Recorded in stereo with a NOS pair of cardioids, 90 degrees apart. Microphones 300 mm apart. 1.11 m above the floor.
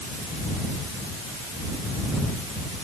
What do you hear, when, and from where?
Only background noise.